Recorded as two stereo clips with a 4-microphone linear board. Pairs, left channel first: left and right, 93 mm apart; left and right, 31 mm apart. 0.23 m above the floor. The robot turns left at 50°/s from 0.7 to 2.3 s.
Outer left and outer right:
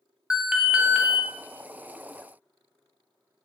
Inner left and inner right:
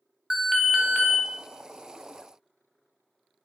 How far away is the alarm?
About 0.6 m.